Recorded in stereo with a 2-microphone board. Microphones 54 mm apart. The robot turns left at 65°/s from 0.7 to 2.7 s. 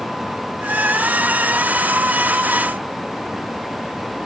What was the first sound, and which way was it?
Only background noise.